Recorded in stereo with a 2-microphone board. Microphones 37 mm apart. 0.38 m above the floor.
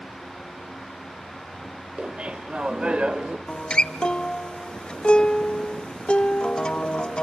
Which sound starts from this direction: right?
Laughter, at 2.0 s.